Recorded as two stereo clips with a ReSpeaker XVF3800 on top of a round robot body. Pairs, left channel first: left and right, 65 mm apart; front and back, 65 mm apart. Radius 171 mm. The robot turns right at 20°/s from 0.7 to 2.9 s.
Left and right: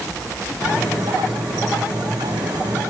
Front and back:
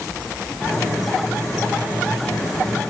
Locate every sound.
Only background noise.